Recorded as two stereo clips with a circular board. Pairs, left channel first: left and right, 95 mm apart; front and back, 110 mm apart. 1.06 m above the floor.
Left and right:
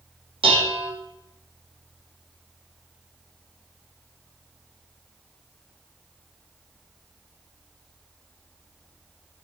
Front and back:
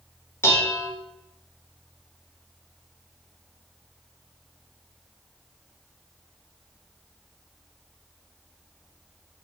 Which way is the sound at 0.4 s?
65° right.